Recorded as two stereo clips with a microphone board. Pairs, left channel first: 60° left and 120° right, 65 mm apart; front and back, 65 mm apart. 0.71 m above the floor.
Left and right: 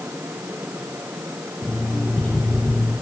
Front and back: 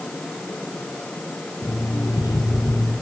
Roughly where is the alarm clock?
Ahead.